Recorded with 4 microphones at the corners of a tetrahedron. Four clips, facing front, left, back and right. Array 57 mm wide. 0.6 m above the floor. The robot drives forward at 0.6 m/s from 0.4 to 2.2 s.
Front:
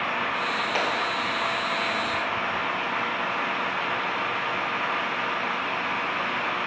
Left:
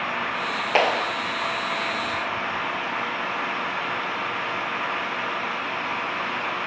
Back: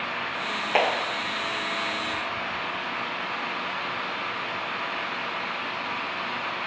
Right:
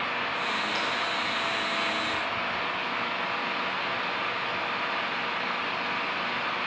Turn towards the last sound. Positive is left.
turn(degrees=120)